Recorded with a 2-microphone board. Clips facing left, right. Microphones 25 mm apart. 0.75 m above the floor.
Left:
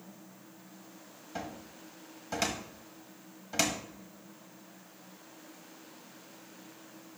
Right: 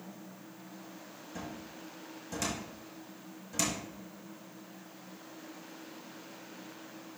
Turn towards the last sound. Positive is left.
turn(degrees=35)  # may be behind; listen again after turning